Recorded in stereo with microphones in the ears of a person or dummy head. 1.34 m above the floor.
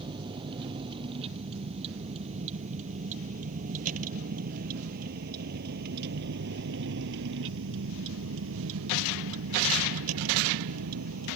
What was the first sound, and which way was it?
A vehicle, 25° right (ahead or behind).